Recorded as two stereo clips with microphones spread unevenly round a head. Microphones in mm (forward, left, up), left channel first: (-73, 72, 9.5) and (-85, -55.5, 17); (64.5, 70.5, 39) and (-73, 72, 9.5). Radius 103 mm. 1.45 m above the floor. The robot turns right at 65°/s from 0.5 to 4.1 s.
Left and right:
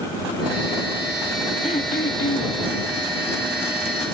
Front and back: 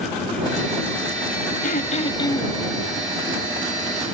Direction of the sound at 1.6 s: 15° left.